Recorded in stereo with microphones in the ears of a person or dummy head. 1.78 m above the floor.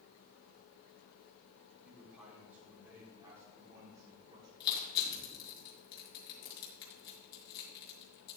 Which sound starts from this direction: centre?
A man speaking, at 1.8 s.